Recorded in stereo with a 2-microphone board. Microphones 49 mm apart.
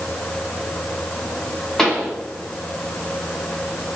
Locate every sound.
1.8 s a pop: 10° left (ahead or behind), 1.9 m